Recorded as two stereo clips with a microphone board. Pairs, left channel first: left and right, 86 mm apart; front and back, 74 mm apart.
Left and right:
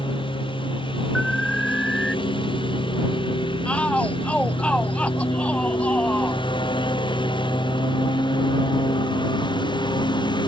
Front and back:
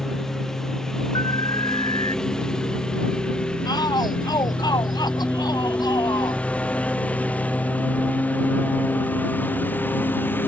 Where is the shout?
15° left.